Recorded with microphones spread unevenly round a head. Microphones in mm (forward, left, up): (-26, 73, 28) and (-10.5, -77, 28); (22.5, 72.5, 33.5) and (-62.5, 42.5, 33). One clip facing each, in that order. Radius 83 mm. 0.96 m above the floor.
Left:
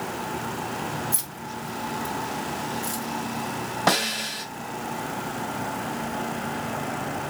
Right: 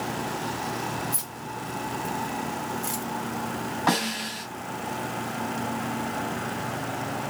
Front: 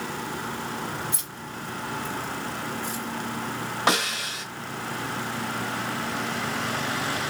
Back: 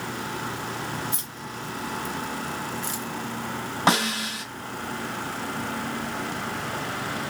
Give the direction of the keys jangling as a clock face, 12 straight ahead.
7 o'clock.